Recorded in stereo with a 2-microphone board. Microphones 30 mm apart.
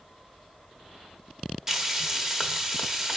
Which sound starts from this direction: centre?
Frying, at 1.7 s.